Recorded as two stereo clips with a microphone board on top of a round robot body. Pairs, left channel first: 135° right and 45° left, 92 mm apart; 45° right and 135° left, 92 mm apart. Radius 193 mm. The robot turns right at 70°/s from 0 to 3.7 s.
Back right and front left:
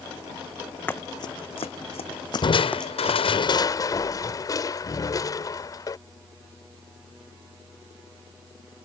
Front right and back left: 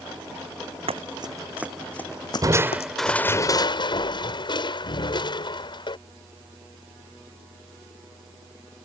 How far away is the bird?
No bird in this recording.